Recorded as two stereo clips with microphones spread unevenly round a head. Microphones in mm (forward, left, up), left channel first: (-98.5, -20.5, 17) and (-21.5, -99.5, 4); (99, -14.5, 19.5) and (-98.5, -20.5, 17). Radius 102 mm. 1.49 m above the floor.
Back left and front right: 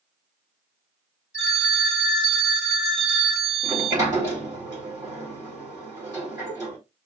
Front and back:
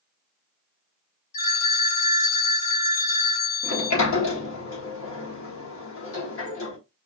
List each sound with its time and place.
1.3 s a phone ringing: 45° left, 2.5 m
3.6 s a sliding door: 30° left, 1.5 m